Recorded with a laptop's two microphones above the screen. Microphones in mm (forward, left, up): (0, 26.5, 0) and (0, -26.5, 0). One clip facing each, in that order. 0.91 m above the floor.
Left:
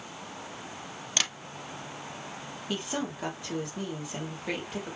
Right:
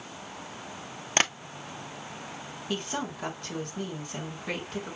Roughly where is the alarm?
No alarm in this recording.